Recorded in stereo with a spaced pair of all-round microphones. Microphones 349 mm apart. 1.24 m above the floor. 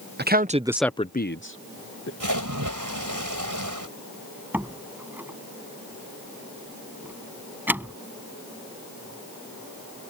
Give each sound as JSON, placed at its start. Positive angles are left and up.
{"t": 0.2, "sound": "a man speaking", "side_deg": -30}
{"t": 2.2, "sound": "a splash", "side_deg": -65}
{"t": 4.5, "sound": "a door slam", "side_deg": -5}